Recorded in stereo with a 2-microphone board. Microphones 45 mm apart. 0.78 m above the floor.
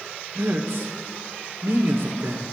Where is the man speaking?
75° right (ahead or behind), 1.9 m.